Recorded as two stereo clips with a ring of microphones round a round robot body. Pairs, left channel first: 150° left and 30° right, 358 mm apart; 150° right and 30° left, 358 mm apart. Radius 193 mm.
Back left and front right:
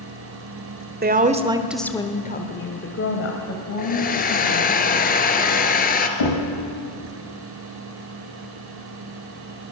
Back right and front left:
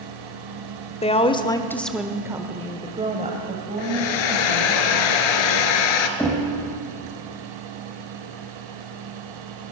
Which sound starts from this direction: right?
A woman speaking, at 1.0 s.